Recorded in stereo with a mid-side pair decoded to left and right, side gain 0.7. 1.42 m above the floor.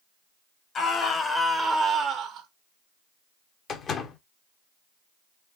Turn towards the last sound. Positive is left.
turn(degrees=35)